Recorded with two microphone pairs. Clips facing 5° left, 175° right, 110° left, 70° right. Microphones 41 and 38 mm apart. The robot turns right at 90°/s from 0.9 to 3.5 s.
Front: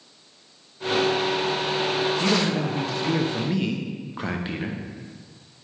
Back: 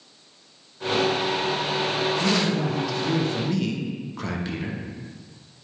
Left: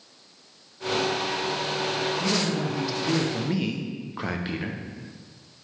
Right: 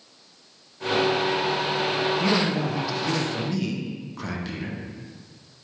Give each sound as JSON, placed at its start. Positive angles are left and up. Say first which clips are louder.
{"t": 2.2, "sound": "a man speaking", "louder": "even, right 3 dB", "azimuth_deg": -60, "distance_m": 0.8}